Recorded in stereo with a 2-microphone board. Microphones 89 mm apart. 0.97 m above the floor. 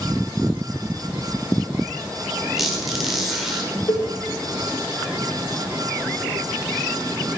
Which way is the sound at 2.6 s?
Centre (ahead or behind).